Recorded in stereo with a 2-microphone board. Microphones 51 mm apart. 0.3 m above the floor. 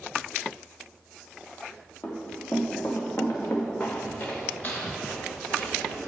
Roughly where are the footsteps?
Left.